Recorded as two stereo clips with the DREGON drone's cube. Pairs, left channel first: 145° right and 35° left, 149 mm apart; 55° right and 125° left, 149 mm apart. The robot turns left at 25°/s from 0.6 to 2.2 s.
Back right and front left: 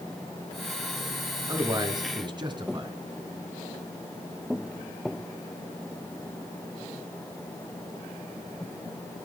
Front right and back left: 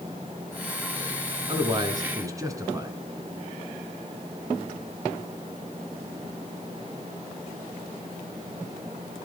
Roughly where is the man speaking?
Left.